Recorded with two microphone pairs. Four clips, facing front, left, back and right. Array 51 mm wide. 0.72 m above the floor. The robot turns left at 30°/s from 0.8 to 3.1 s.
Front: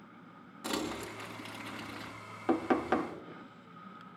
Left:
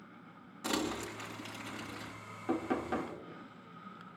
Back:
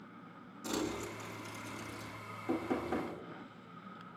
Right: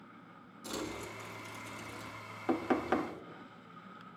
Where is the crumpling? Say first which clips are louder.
Left 5 dB, front 1 dB; 60° left, 2.5 m; by 2.1 s 20° left, 2.5 m.